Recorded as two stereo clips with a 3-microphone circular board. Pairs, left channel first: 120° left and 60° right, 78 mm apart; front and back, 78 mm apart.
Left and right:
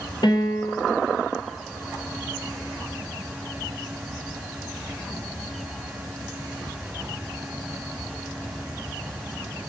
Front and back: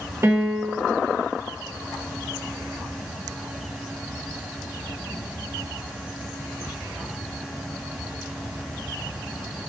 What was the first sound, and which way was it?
A piano, 125° left.